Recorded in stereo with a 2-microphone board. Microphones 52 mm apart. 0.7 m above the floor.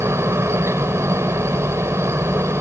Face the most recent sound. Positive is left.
turn(degrees=-55)  # may be behind; listen again after turning